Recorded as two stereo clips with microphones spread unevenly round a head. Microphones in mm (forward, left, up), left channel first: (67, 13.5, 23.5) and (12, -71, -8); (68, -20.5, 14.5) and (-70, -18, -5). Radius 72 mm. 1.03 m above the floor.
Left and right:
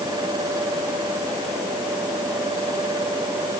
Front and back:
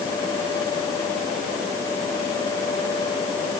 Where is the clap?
No clap in this recording.